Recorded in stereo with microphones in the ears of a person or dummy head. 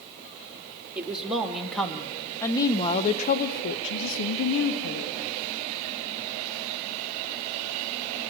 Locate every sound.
0.9 s a woman speaking: 10° right (ahead or behind), 2.5 m; by 5.1 s 70° left (ahead or behind), 2.0 m